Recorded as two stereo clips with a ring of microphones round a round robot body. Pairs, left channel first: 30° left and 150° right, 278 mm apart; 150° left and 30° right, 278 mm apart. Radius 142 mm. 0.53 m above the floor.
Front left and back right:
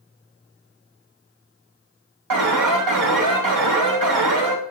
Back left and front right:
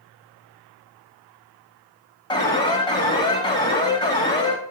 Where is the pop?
No pop in this recording.